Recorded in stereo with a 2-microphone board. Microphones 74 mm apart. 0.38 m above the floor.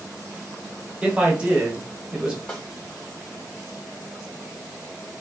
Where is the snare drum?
15° left (ahead or behind), 0.9 m.